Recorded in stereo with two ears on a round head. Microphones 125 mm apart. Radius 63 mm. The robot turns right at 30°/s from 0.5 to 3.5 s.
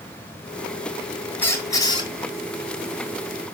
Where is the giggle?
I don't hear a giggle.